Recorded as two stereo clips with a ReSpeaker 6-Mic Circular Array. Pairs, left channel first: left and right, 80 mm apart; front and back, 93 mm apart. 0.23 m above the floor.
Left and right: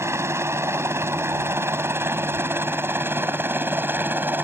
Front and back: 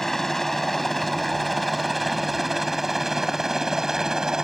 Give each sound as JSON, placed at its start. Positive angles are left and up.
{"t": 0.0, "sound": "a helicopter", "azimuth_deg": -85}